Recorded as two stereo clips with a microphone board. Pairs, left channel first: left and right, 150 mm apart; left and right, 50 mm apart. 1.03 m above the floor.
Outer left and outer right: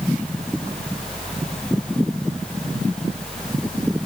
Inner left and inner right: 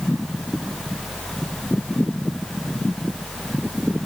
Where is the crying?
I don't hear crying.